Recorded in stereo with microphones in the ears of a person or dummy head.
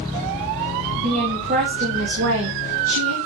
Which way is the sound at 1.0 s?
35° right (ahead or behind).